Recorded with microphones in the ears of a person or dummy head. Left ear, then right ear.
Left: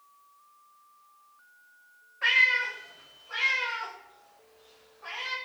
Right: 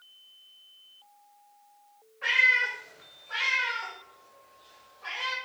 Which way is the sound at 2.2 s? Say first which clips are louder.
Even; 25° left (ahead or behind).